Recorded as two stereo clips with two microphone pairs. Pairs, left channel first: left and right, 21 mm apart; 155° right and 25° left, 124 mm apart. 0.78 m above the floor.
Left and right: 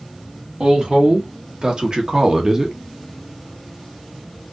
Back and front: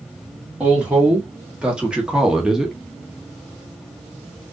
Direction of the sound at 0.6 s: 60° right.